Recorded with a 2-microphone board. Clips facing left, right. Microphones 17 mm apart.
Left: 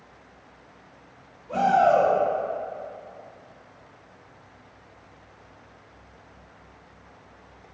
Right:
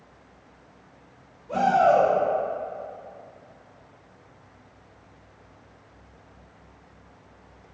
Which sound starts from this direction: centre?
A shout, at 1.5 s.